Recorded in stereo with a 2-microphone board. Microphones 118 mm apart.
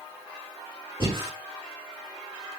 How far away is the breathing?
About 1.7 m.